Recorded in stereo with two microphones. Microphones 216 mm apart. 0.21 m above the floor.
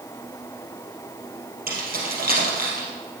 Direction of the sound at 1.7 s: 45° right (ahead or behind).